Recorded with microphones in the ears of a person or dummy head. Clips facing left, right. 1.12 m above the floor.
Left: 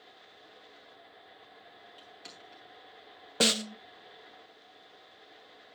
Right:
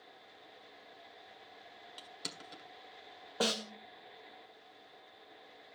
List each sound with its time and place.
2.0 s crushing: 60° right (ahead or behind), 1.5 m
3.4 s a snare drum: 30° left (ahead or behind), 0.5 m